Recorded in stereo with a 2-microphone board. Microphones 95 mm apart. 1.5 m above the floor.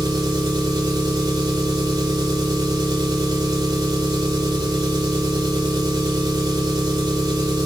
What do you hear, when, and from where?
0.0 s an engine running: 45° right (ahead or behind), 4 m